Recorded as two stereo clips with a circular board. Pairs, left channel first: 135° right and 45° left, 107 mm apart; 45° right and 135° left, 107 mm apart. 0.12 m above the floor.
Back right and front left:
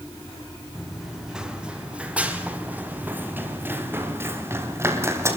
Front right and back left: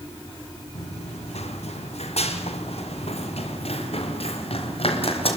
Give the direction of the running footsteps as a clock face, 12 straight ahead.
1 o'clock.